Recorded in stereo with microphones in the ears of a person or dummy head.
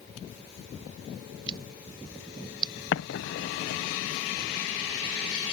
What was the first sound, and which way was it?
Scissors, 25° right (ahead or behind).